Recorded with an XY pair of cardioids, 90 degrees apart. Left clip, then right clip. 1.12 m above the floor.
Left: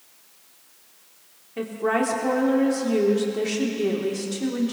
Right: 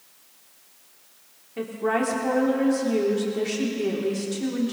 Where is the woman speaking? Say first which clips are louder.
Left 1 dB; 15° left, 2.5 m.